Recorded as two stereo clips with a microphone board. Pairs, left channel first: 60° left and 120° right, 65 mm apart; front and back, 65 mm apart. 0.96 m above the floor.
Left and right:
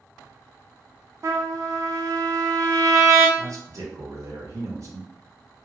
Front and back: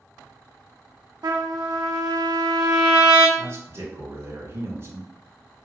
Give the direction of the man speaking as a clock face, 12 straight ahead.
5 o'clock.